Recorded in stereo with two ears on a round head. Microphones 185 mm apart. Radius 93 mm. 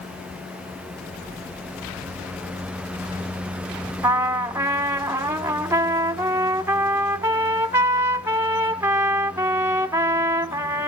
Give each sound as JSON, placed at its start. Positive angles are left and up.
{"t": 4.0, "sound": "a trumpet", "side_deg": -10, "distance_m": 0.8}